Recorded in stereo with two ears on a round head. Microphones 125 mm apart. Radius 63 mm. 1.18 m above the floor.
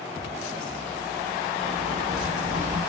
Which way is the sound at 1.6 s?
60° right (ahead or behind).